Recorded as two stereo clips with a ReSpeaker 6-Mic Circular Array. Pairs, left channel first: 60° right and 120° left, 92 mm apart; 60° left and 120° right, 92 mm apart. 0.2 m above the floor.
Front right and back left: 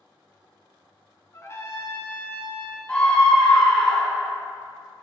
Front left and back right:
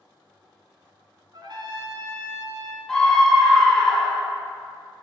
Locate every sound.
1.3 s a trumpet: 110° right, 0.7 m
2.9 s a scream: 10° right, 1.0 m